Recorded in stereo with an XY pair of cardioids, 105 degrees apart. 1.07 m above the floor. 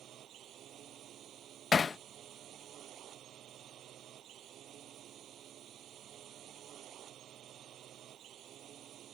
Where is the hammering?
35° left.